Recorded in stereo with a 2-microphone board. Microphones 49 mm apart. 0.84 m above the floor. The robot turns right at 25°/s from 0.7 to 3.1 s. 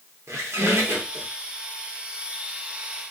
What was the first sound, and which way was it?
A squeak, 70° right (ahead or behind).